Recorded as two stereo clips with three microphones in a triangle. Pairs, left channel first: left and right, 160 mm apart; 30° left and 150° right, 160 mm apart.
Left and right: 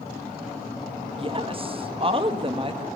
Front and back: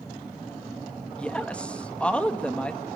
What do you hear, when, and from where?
1.2 s a woman speaking: 50° right, 1.4 m